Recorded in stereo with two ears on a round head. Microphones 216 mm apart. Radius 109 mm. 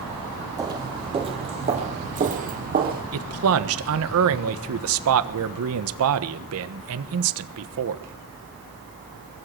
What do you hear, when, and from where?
0.6 s footsteps: 15° right (ahead or behind), 2 m; by 3.0 s 40° right (ahead or behind), 3 m
3.1 s a man speaking: 65° right (ahead or behind), 1.3 m